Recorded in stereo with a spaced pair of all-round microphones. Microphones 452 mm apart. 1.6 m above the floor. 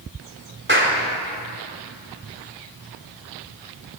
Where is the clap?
25° right (ahead or behind), 4 m.